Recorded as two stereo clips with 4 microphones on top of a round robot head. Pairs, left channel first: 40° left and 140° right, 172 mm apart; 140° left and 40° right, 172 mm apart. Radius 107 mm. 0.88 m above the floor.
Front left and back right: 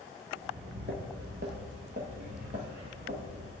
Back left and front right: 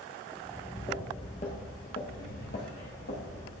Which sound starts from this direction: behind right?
Footsteps, at 0.4 s.